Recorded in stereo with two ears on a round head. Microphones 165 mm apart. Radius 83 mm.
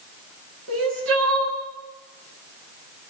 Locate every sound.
0.7 s crying: 90° right, 7 m